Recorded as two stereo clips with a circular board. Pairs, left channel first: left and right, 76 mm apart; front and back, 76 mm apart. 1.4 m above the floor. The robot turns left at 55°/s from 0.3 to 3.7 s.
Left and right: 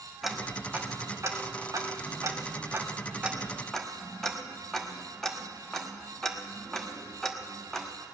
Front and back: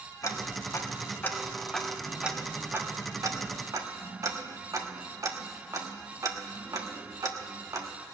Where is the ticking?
Straight ahead, 1.1 m; by 7.9 s 170° left, 1.1 m.